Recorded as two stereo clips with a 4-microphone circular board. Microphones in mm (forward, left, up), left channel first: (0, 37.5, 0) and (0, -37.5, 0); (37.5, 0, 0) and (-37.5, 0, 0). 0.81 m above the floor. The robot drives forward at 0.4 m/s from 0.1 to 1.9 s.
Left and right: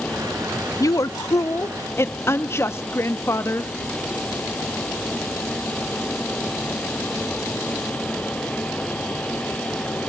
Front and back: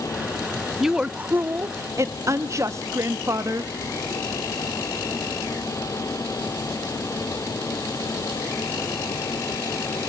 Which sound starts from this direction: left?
A woman speaking, at 0.8 s.